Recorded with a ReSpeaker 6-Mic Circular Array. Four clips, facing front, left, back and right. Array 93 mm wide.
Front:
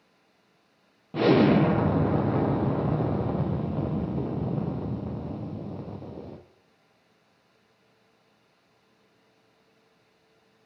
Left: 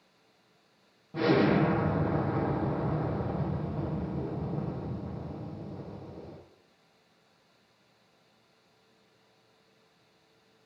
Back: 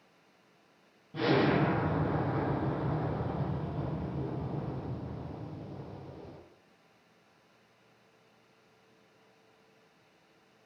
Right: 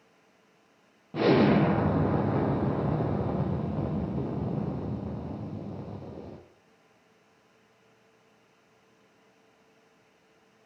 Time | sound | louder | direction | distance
1.1 | an explosion | right 3 dB, front 7 dB | 20° right | 0.8 m